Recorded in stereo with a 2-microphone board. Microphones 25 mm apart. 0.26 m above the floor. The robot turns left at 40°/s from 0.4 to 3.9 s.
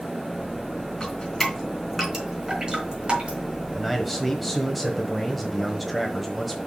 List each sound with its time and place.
1.0 s dripping: 35° left (ahead or behind), 3.5 m; by 3.4 s 50° right (ahead or behind), 3.5 m
3.7 s a man speaking: 5° right (ahead or behind), 1.1 m; by 6.6 s centre (ahead or behind), 1.1 m